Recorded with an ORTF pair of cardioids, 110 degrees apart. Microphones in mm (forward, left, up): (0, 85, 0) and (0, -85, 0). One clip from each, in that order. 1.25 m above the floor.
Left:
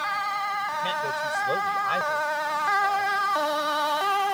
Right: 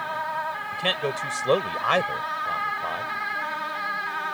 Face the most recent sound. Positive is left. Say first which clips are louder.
# right 1 dB
turn(degrees=-55)